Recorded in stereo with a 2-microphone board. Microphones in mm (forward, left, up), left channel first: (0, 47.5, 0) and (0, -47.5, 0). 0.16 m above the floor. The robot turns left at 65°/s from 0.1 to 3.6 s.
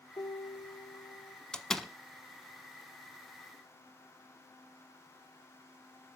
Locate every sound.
0.2 s a piano: 135° left, 2 m; by 1.4 s 60° left, 2 m
1.5 s a door slam: 10° left (ahead or behind), 0.7 m; by 1.9 s centre (ahead or behind), 0.7 m